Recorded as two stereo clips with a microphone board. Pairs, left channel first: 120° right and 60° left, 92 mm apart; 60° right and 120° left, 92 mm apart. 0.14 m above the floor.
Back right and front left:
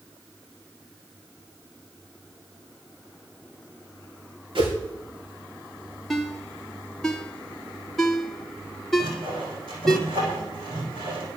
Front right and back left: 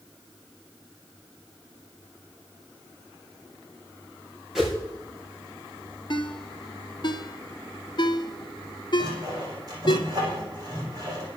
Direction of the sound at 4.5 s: 35° left.